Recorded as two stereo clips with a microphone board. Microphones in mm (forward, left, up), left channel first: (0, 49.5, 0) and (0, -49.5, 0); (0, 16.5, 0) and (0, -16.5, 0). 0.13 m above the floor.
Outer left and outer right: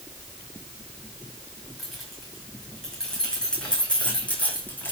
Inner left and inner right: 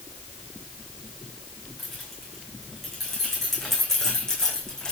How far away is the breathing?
I don't hear breathing.